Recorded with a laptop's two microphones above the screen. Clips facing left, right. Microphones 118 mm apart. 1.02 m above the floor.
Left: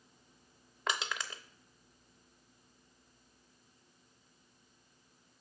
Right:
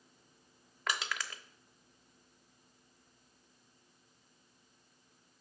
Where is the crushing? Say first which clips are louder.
Left 1 dB; 25° left (ahead or behind), 0.7 m.